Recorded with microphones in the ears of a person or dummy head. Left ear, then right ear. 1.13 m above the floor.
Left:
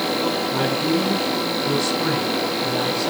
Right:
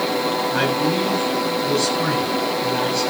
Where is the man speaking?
60° right (ahead or behind), 9.5 m; by 3.1 s 55° right (ahead or behind), 9.5 m.